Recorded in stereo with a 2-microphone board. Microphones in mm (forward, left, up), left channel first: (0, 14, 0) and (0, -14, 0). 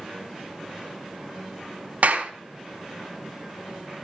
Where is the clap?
65° right (ahead or behind), 3 m.